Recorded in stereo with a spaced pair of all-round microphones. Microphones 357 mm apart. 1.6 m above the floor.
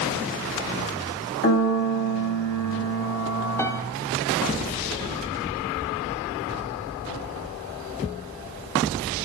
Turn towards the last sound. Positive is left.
turn(degrees=5)  # may be behind; listen again after turning